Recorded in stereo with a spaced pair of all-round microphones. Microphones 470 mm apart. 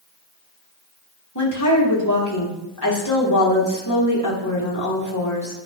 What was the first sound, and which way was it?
A woman speaking, 40° left (ahead or behind).